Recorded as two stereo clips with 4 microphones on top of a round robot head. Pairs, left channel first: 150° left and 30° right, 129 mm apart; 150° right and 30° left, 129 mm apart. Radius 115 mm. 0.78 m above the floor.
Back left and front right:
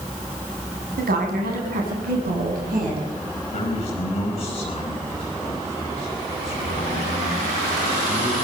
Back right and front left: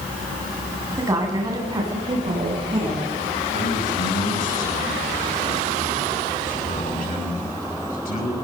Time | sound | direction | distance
1.0 | a woman speaking | 35° right | 6 m
3.5 | a man speaking | 165° right | 10 m